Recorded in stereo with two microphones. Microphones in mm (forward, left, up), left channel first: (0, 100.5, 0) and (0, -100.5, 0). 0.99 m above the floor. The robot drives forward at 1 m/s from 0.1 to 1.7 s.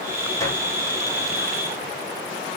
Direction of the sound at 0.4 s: 15° left (ahead or behind).